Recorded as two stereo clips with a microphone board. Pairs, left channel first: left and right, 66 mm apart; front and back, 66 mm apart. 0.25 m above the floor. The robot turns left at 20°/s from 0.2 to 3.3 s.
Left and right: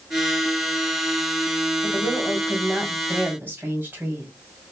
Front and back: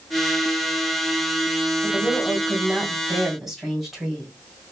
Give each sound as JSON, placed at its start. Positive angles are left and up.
{"t": 1.8, "sound": "a woman speaking", "azimuth_deg": -65, "distance_m": 1.7}